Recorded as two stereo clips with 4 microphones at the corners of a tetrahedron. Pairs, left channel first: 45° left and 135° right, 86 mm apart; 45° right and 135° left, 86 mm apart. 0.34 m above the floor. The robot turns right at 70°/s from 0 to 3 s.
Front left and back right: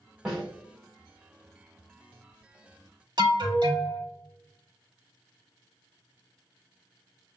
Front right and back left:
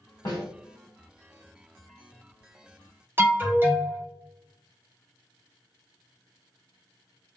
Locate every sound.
0.2 s a snare drum: 55° right, 2.5 m; by 0.5 s 40° right, 2.5 m
3.2 s an alarm: 160° right, 1.6 m